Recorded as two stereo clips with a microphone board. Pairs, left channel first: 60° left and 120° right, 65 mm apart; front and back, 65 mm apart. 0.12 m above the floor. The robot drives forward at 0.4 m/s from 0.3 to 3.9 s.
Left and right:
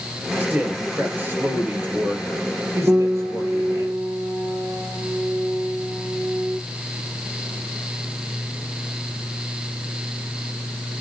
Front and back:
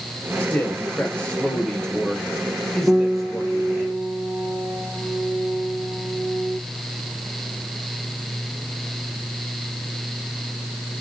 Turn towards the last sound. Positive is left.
turn(degrees=-140)